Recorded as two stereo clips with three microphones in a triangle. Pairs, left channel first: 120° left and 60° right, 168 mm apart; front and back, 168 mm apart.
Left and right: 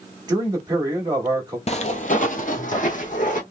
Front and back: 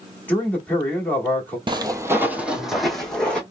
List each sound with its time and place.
0.3 s a man speaking: 65° right, 1.4 m
1.7 s footsteps: 135° left, 0.6 m; by 3.4 s 80° left, 1.2 m